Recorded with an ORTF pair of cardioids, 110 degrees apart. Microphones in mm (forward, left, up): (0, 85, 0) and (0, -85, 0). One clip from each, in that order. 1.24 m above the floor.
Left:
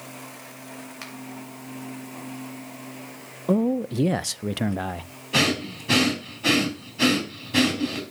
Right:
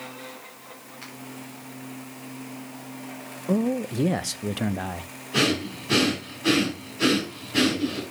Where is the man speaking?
20° left, 0.6 m.